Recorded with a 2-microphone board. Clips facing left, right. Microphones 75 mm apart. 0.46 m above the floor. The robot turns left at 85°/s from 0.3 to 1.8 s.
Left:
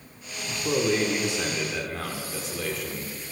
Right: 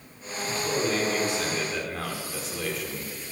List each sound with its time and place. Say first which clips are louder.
0.6 s a man speaking: left 3 dB; 105° left, 0.9 m; by 3.1 s straight ahead, 0.9 m